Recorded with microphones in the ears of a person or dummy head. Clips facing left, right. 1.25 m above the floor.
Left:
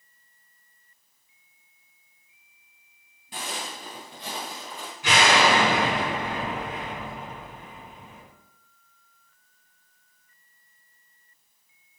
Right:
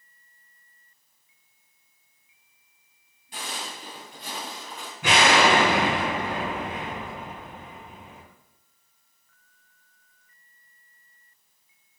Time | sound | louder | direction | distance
3.3 | footsteps | left 2 dB | 50° left (ahead or behind) | 1.9 m
5.0 | an explosion | right 1 dB | 45° right (ahead or behind) | 1.3 m